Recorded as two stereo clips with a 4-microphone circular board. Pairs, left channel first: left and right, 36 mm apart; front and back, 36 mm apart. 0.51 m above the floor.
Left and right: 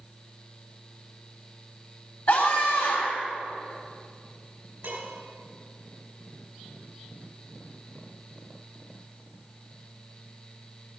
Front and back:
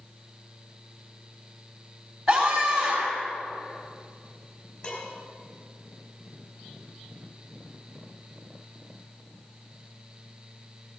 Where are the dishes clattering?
50° right, 5 m.